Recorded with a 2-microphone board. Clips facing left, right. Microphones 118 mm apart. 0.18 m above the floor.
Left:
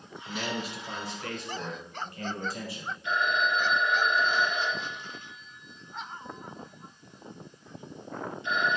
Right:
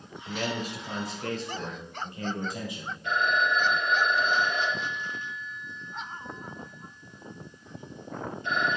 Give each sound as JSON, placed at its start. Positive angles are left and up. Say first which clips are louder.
{"t": 0.3, "sound": "a man speaking", "louder": "right 2 dB", "side_deg": -55, "distance_m": 3.0}
{"t": 3.0, "sound": "a phone ringing", "louder": "right 2 dB", "side_deg": -50, "distance_m": 3.5}